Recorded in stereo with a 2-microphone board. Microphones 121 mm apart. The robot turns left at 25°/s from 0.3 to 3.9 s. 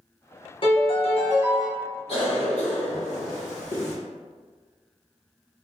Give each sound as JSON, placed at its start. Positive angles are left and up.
{"t": 0.6, "sound": "a piano", "side_deg": 45, "distance_m": 0.7}
{"t": 2.1, "sound": "a cough", "azimuth_deg": 125, "distance_m": 1.3}